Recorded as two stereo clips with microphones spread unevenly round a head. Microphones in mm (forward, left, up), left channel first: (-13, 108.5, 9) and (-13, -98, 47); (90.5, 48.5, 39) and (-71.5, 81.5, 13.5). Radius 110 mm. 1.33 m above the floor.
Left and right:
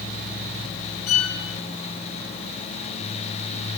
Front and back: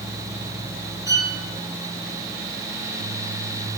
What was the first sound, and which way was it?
A violin, 100° left.